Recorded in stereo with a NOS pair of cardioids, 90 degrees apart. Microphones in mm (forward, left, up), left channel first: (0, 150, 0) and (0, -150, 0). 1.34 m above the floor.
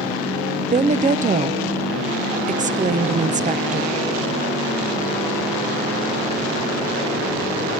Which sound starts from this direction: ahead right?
A woman speaking, at 0.6 s.